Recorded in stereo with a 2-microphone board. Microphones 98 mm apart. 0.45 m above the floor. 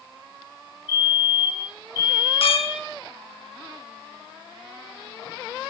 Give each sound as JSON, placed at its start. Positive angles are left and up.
{"t": 0.9, "sound": "a fire alarm", "side_deg": -20, "distance_m": 3.5}
{"t": 2.4, "sound": "a clink", "side_deg": 70, "distance_m": 3.0}